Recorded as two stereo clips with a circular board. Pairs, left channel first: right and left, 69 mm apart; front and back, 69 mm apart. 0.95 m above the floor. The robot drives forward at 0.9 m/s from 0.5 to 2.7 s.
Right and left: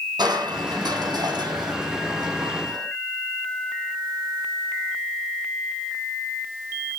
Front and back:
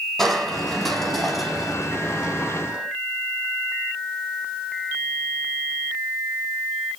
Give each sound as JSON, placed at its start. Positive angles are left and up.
{"t": 0.2, "sound": "crushing", "azimuth_deg": 85, "distance_m": 6.0}